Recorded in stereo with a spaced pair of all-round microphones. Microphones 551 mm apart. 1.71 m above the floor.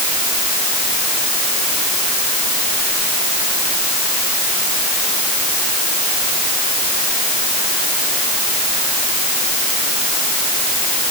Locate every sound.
Only background noise.